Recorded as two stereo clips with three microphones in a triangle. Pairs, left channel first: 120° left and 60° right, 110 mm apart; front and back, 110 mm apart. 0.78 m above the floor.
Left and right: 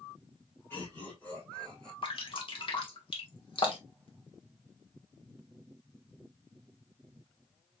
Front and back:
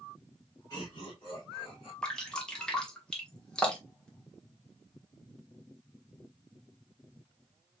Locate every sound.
0.7 s laughter: 55° left, 3 m; by 1.9 s 35° left, 3 m
2.0 s dripping: 80° left, 1.3 m